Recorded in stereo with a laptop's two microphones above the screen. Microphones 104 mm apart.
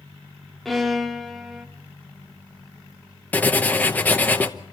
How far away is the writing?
About 0.8 m.